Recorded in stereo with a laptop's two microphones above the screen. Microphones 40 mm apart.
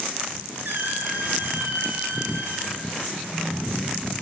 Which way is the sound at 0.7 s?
65° right (ahead or behind).